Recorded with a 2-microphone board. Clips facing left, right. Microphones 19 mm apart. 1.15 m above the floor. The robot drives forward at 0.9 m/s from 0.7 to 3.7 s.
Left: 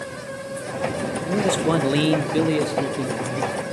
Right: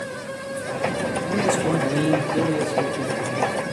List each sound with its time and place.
1.2 s a man speaking: 30° left (ahead or behind), 1.0 m; by 3.5 s 20° left (ahead or behind), 1.4 m